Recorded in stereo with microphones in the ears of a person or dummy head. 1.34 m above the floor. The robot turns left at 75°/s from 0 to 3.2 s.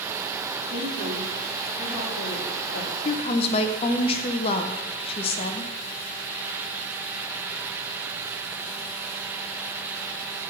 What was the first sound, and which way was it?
A woman speaking, 125° right.